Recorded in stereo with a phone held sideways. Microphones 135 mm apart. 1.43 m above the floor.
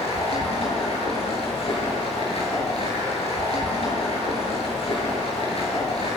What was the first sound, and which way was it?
Running water, 45° left (ahead or behind).